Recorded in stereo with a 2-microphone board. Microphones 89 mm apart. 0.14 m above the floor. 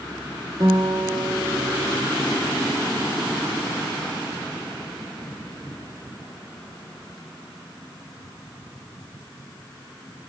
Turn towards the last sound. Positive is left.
turn(degrees=-65)  # may be behind; listen again after turning